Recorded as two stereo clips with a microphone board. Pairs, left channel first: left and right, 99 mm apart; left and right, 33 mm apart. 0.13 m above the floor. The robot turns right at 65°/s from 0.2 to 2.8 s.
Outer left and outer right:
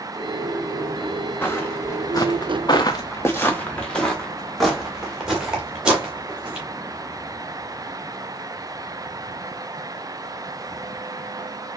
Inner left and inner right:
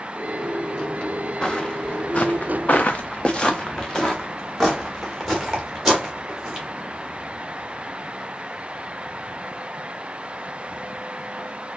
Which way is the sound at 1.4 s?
20° left (ahead or behind).